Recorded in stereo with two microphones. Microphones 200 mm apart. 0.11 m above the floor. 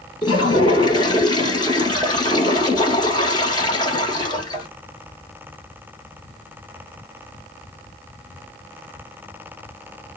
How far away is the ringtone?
I don't hear a ringtone.